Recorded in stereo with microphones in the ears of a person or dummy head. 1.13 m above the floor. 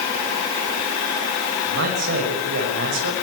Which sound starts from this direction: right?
A man speaking, at 1.7 s.